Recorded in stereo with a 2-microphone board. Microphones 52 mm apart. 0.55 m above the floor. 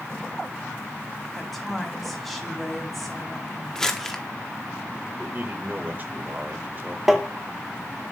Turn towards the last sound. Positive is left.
turn(degrees=-10)  # may be behind; listen again after turning